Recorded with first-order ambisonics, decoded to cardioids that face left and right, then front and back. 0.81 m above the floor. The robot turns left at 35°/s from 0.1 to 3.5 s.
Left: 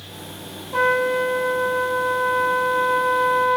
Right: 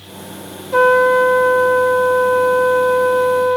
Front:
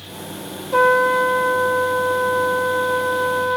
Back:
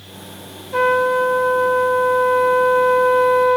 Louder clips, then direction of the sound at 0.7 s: Right 8 dB, front 1 dB; 45° right.